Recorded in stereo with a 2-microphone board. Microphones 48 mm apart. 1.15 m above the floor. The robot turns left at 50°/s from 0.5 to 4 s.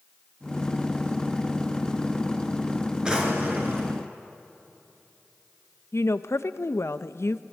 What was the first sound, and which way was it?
A drawer, 20° right.